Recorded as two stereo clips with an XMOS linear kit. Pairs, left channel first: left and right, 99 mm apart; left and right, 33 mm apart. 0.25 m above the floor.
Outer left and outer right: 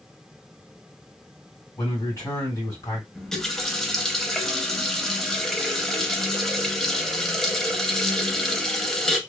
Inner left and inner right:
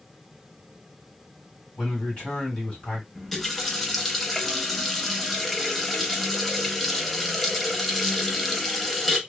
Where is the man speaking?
30° left (ahead or behind), 1.9 m.